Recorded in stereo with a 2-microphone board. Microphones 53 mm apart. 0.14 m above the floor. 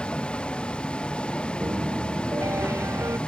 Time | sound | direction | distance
0.0 | a vehicle | 20° left (ahead or behind) | ?
1.6 | a piano | 60° right (ahead or behind) | ?